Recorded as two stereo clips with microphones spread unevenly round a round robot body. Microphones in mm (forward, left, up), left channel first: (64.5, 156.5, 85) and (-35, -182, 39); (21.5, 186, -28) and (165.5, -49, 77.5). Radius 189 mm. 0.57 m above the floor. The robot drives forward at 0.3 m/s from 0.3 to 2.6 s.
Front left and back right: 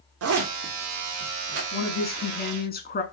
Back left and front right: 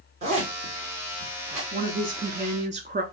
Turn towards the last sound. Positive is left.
turn(degrees=25)